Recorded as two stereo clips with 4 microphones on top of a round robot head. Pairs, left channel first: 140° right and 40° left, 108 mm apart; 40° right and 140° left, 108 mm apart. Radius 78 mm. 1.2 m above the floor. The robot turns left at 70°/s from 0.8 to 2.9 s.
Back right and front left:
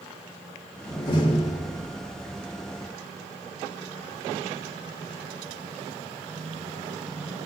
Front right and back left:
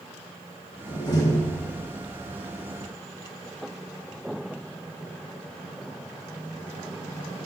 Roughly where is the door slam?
Right.